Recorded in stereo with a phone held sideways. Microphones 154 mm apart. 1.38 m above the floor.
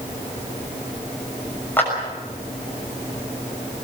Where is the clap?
10° left (ahead or behind), 6.5 m.